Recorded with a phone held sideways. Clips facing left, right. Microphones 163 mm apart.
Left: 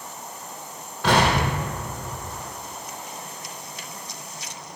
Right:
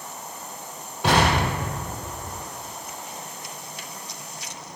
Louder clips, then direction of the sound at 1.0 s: Even; 20° right (ahead or behind).